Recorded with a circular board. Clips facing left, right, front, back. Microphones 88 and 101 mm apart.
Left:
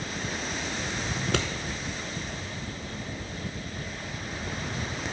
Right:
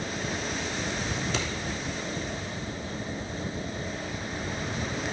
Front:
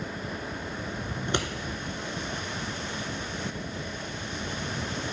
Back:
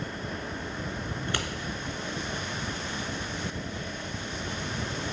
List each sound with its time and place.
1.2 s scissors: 70° left, 0.7 m